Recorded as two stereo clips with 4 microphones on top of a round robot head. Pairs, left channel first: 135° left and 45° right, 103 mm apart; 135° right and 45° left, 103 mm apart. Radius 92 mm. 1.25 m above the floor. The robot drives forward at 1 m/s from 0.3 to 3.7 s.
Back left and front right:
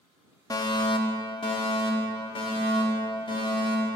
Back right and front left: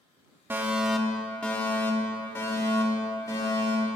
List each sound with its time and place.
0.5 s a fire alarm: 105° left, 1.0 m; by 3.9 s 170° left, 3.5 m